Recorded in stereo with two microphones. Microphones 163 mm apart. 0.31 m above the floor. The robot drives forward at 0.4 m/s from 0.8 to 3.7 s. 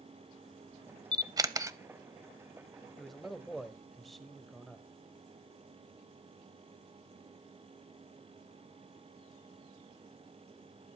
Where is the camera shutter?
25° right (ahead or behind), 0.5 m; by 1.8 s 20° right (ahead or behind), 0.7 m.